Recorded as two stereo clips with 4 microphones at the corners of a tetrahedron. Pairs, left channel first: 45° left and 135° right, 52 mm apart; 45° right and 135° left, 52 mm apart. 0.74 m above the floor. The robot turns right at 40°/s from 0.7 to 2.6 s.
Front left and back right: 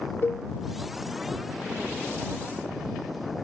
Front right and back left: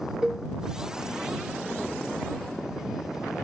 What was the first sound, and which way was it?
A cowbell, 65° left.